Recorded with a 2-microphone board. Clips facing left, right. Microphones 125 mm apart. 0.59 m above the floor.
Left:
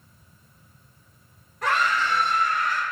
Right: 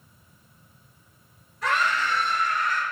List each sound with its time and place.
1.6 s a scream: 60° left (ahead or behind), 3 m